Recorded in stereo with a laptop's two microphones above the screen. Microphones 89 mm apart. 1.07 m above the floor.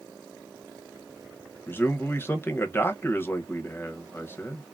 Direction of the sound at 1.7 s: 25° left (ahead or behind).